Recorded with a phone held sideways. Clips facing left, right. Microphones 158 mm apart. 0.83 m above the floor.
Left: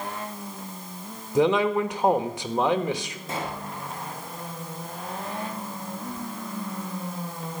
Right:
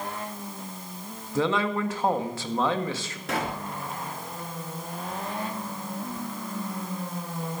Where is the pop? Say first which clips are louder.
Right 3 dB; 75° right (ahead or behind), 3 m.